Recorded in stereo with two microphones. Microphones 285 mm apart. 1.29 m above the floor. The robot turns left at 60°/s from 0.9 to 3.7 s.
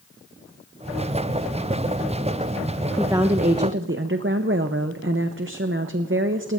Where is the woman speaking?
5° right, 0.7 m; by 6.6 s 45° right, 0.7 m.